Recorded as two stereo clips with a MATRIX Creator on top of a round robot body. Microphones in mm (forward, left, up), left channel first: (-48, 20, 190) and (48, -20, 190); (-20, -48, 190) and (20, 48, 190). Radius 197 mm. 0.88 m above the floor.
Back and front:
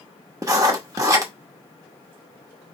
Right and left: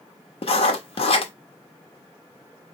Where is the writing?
80° right, 1.0 m.